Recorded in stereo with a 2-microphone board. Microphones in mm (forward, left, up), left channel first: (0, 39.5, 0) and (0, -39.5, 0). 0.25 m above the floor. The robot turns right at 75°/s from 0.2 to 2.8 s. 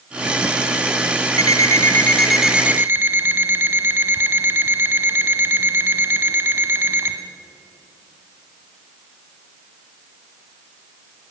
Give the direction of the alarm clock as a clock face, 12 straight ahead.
8 o'clock.